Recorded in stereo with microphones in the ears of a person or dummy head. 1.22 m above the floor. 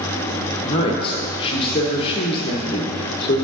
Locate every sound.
0.6 s a woman speaking: 25° left (ahead or behind), 0.9 m